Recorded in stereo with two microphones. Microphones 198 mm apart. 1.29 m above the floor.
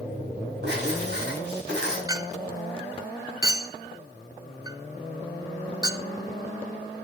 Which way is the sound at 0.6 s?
80° right.